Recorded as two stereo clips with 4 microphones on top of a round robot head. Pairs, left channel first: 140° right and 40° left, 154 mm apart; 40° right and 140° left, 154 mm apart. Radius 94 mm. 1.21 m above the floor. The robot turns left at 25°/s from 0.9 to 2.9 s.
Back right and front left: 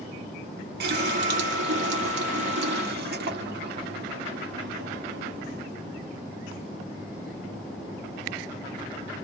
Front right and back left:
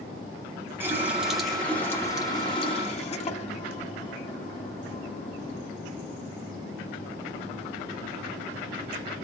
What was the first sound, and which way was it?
A running tap, 60° left.